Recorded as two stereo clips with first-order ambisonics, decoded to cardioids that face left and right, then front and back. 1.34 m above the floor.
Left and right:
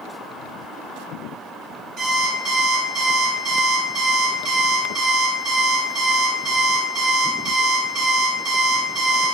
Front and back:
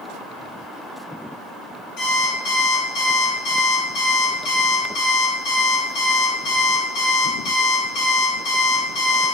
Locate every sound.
2.0 s an alarm clock: 25° right, 2 m